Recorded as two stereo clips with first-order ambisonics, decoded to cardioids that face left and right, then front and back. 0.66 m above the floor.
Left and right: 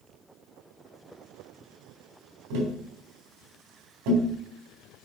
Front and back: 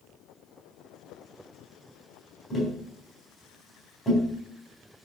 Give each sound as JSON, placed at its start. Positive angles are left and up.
{"t": 2.5, "sound": "tapping", "azimuth_deg": -75, "distance_m": 4.0}